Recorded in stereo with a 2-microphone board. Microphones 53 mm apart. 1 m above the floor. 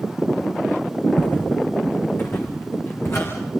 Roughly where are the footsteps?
Left.